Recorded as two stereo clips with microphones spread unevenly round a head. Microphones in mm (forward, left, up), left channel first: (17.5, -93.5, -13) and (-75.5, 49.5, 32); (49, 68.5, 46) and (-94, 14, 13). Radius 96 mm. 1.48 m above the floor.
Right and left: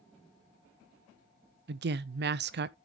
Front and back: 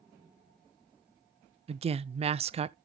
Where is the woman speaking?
155° left, 0.5 m.